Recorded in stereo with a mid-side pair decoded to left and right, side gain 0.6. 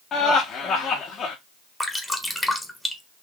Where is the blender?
No blender in this recording.